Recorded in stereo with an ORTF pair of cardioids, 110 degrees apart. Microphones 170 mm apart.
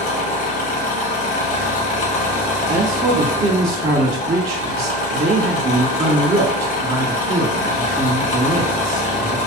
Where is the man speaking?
40° right, 1.4 m.